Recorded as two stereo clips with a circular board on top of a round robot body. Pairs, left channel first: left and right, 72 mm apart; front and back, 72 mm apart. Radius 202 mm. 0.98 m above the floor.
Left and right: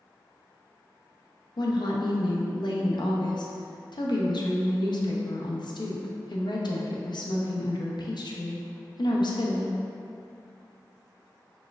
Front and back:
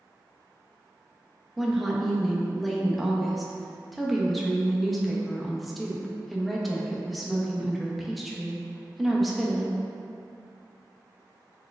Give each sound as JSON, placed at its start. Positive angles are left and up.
{"t": 1.6, "sound": "a woman speaking", "azimuth_deg": 90, "distance_m": 0.8}